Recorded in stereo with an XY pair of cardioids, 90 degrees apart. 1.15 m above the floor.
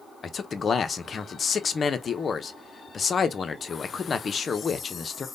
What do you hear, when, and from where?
0.2 s a man speaking: 50° left, 0.6 m